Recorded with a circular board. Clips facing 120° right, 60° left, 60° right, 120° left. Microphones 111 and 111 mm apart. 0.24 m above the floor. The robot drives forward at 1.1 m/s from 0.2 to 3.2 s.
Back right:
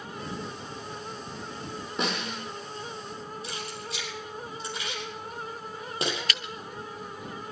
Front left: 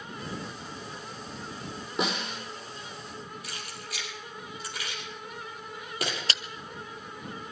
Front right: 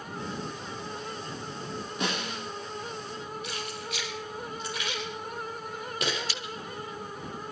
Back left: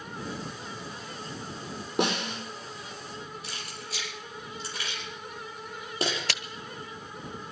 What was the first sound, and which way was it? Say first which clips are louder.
A snare drum: front left 1 dB, back left 6 dB; 145° left.